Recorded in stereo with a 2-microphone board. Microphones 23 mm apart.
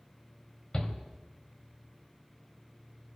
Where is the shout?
30° left (ahead or behind), 1.3 m.